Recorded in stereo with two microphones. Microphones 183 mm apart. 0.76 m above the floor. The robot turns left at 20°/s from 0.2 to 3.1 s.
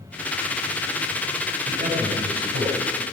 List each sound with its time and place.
1.7 s a man speaking: 50° right (ahead or behind), 4.5 m; by 3.0 s 75° right (ahead or behind), 4.5 m